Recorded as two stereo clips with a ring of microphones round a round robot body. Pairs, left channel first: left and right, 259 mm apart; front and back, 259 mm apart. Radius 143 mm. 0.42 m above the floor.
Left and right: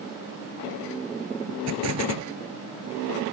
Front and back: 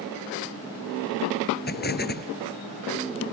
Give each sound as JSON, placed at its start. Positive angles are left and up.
{"t": 1.7, "sound": "an explosion", "azimuth_deg": -50}